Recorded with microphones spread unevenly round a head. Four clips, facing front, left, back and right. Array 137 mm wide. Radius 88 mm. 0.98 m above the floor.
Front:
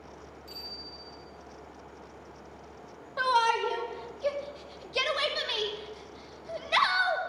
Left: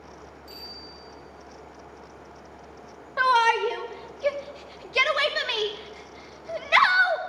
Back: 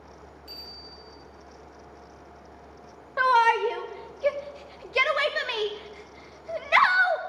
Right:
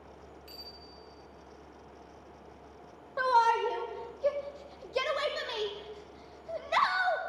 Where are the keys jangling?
I don't hear keys jangling.